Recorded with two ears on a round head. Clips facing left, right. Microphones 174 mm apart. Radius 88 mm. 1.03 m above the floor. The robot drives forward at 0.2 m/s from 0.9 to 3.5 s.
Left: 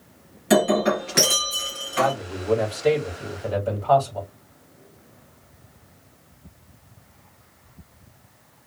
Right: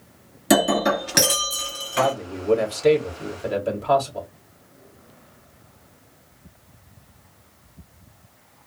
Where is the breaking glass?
50° right (ahead or behind), 2.5 m; by 2.1 s 45° right (ahead or behind), 3 m.